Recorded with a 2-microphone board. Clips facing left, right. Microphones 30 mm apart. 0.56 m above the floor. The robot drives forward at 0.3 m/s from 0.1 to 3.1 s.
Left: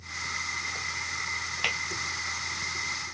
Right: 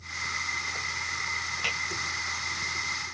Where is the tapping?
25° left (ahead or behind), 2 m.